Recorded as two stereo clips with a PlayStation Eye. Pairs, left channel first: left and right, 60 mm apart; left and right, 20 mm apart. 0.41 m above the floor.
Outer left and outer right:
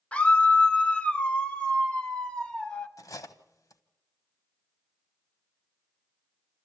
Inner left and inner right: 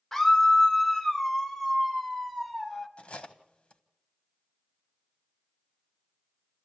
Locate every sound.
0.1 s a scream: 20° left (ahead or behind), 0.8 m; by 2.9 s 15° left (ahead or behind), 2 m
3.0 s cutlery clinking: 70° left (ahead or behind), 1.2 m